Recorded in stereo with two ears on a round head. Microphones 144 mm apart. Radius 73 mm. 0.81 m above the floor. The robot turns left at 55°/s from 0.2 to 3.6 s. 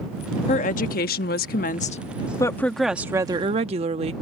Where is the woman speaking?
130° left; by 4.1 s 45° right.